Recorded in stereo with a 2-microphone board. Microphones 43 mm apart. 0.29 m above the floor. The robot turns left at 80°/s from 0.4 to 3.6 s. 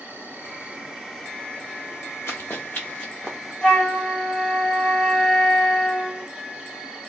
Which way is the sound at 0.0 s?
120° right.